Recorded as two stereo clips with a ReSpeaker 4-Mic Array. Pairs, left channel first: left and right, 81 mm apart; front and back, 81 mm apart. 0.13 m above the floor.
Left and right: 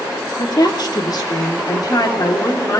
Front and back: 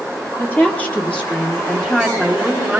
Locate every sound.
0.4 s a woman speaking: 65° left, 3 m; by 2.8 s 105° left, 2 m